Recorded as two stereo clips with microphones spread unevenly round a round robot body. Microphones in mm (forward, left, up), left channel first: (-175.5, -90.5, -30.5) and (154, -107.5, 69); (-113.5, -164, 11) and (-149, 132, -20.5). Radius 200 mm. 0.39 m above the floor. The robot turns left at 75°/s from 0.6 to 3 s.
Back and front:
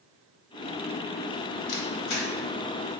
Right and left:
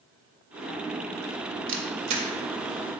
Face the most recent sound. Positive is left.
turn(degrees=50)